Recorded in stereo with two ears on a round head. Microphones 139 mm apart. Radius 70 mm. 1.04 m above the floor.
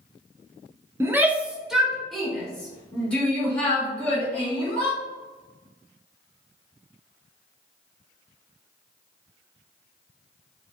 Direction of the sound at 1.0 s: 15° right (ahead or behind).